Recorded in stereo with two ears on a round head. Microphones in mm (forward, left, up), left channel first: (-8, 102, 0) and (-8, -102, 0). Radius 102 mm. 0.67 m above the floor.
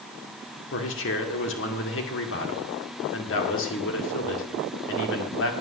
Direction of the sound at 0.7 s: 60° left (ahead or behind).